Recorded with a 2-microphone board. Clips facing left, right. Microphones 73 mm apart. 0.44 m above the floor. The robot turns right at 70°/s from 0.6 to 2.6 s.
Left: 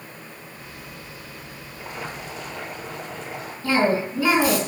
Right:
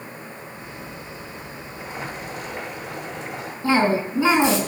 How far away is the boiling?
About 8 m.